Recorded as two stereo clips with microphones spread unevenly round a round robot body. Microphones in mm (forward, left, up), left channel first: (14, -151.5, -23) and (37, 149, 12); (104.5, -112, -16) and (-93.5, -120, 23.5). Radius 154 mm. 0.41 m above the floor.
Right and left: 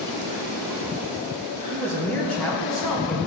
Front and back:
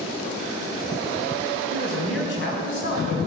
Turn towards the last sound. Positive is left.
turn(degrees=-5)